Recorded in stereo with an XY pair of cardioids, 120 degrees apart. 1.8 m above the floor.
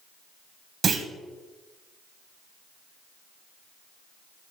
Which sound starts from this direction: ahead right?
A clunk, at 0.8 s.